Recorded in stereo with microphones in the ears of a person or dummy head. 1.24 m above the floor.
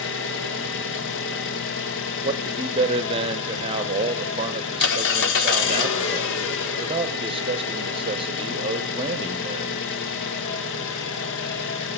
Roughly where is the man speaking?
Right.